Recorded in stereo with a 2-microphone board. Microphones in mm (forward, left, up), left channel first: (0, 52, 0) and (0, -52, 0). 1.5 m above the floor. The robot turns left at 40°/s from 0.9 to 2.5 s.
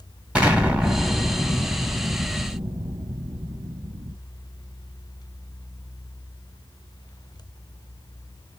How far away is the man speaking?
I don't hear a man speaking.